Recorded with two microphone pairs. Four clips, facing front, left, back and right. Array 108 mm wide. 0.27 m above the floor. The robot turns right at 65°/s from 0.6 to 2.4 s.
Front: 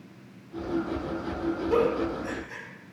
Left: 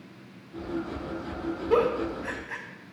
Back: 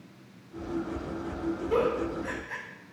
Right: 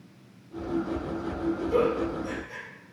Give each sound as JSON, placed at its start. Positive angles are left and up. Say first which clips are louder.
{"t": 1.7, "sound": "a giggle", "louder": "left 3 dB, front 2 dB", "azimuth_deg": 75, "distance_m": 0.6}